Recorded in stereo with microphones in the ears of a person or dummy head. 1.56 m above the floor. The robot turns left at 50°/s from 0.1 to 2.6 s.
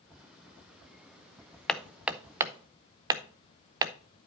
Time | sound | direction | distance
1.7 | hammering | 5° left (ahead or behind) | 0.7 m